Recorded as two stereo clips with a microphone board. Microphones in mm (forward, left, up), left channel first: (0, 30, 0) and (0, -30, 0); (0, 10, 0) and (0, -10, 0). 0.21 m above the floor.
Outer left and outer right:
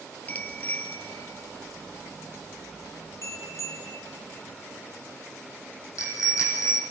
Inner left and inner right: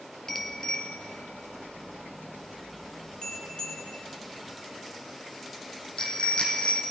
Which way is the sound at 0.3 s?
25° left (ahead or behind).